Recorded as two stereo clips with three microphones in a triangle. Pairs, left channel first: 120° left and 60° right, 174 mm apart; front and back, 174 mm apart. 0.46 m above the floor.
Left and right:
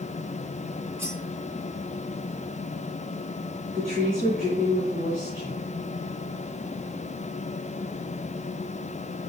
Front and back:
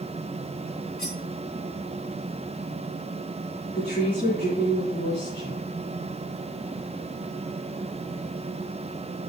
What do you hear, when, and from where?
1.0 s cutlery clinking: 15° left, 3 m
3.7 s a woman speaking: 15° right, 4.5 m